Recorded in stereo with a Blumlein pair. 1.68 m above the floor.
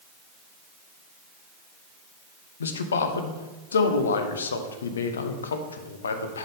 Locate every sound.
2.6 s a man speaking: 65° left, 0.8 m